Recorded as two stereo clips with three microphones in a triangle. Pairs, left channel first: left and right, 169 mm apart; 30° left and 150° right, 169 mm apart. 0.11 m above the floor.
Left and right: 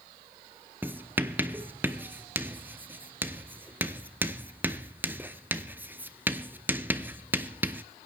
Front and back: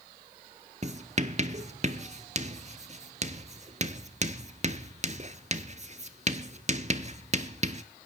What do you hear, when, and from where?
0.8 s writing: 165° right, 0.7 m